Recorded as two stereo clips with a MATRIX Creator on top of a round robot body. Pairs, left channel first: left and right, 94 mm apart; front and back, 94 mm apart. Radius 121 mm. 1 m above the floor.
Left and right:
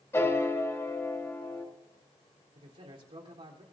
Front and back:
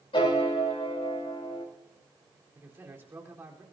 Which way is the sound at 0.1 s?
30° left.